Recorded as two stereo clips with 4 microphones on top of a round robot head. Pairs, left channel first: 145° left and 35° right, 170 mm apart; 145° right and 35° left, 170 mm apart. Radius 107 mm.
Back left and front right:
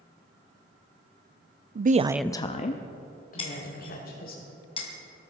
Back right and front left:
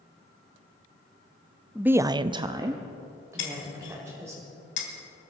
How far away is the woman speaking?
About 0.7 m.